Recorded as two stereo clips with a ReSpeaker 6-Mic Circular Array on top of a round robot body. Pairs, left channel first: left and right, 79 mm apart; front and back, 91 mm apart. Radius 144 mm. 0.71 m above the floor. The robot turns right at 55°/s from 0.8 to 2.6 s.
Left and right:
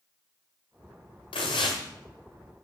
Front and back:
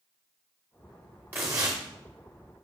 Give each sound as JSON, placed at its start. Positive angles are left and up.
{"t": 1.3, "sound": "tearing paper", "azimuth_deg": 110, "distance_m": 0.6}